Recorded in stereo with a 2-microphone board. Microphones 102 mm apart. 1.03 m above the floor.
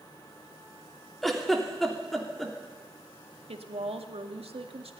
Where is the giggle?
Centre (ahead or behind), 2.5 m.